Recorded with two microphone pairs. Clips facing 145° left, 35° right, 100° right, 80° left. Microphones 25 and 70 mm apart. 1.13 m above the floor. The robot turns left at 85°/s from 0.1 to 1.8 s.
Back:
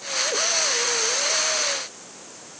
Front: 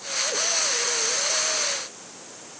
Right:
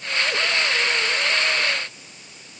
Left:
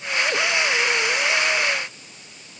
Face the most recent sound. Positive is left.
No sound to turn to.